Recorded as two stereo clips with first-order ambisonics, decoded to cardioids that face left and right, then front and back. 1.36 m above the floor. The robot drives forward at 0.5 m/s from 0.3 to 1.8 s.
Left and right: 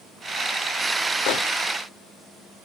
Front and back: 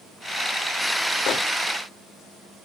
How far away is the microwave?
About 0.7 m.